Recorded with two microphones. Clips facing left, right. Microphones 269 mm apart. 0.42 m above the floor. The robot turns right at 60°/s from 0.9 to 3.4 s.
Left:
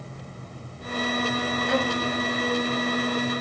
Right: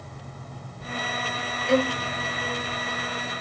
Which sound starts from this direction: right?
A violin, at 1.7 s.